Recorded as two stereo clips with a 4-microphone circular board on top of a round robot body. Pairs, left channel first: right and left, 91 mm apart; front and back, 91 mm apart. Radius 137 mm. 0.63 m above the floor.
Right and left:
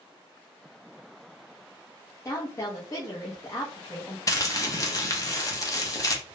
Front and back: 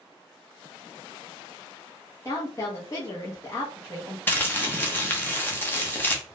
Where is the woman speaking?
45° right, 0.8 m.